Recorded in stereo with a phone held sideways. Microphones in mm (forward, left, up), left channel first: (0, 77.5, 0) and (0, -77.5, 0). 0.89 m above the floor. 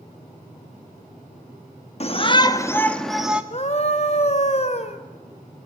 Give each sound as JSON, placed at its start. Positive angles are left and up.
{"t": 2.0, "sound": "a shout", "side_deg": 45, "distance_m": 1.7}
{"t": 3.5, "sound": "a scream", "side_deg": 45, "distance_m": 3.0}